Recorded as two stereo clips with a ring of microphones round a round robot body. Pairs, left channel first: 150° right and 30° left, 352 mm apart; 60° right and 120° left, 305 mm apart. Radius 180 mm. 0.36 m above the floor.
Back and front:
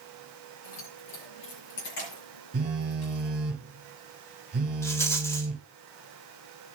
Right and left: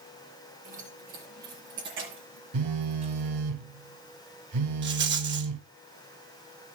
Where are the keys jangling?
170° right, 5 m; by 3.5 s 165° left, 4.5 m.